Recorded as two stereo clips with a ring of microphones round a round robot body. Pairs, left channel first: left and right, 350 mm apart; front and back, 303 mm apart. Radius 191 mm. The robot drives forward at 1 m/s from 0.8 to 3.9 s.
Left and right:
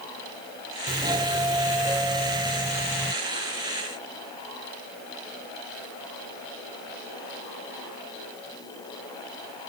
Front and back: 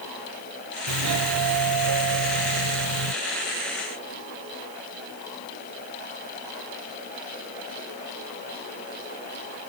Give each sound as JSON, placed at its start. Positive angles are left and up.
{"t": 0.9, "sound": "a doorbell", "azimuth_deg": -165}